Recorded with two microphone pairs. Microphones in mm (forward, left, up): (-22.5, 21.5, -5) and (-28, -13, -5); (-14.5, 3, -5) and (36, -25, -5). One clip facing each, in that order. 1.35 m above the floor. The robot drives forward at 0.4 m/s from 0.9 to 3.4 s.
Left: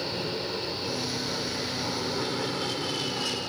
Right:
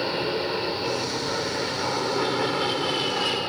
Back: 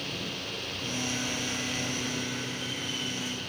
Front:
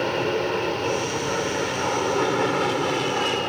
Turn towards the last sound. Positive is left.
turn(degrees=-40)